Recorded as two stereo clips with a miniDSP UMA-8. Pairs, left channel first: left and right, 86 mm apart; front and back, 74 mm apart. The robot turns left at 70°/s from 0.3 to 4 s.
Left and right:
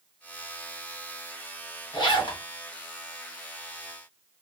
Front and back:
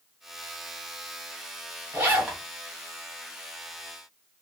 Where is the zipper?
125° left, 1.0 m; by 2.4 s 90° left, 1.0 m.